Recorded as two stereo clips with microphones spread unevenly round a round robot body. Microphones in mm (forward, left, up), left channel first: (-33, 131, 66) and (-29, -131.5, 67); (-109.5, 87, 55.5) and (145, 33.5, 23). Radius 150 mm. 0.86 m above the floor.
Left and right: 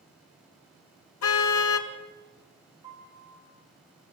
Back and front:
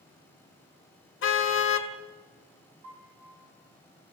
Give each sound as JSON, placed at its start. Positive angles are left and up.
{"t": 1.2, "sound": "a car horn", "azimuth_deg": 125, "distance_m": 2.0}
{"t": 2.8, "sound": "a piano", "azimuth_deg": -15, "distance_m": 5.0}